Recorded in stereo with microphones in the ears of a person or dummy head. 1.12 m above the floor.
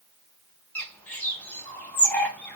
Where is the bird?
5° left (ahead or behind), 1.0 m.